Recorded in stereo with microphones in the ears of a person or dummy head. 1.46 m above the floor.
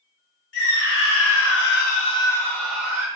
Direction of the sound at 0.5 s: 55° left (ahead or behind).